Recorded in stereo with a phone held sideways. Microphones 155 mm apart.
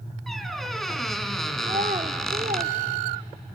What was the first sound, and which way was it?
A squeak, centre (ahead or behind).